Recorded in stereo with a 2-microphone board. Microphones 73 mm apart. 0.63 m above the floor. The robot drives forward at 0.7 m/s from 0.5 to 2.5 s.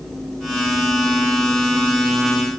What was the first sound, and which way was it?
Only background noise.